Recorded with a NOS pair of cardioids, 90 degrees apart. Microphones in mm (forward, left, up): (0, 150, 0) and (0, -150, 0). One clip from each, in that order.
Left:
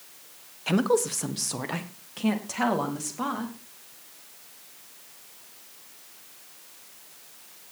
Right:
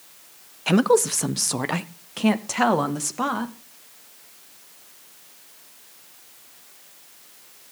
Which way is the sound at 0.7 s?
25° right.